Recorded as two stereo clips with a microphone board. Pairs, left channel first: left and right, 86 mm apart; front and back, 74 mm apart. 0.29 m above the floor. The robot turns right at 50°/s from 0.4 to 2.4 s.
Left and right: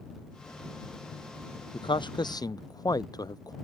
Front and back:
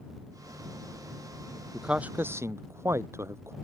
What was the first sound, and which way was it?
A man speaking, 95° left.